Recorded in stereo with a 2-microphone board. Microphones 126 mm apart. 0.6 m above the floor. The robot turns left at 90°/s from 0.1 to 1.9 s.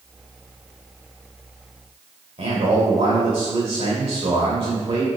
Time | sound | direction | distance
2.4 | a man speaking | 55° right (ahead or behind) | 2.5 m